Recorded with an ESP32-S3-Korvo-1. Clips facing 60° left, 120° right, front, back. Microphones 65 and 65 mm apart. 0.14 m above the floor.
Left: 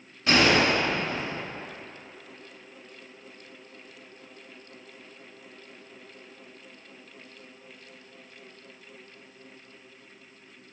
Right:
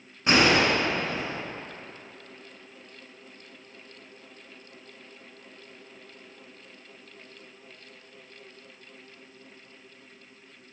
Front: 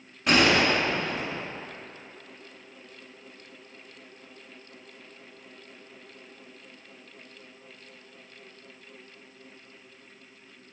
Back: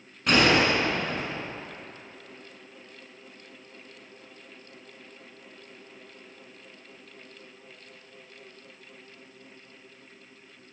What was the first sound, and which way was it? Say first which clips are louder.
A gunshot: even, even; 85° right.